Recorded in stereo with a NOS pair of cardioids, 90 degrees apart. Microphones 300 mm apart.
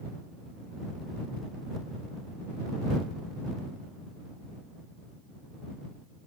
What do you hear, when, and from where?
Only background noise.